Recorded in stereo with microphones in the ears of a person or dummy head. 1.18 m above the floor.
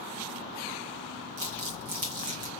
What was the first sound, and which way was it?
Crumpling, 45° right (ahead or behind).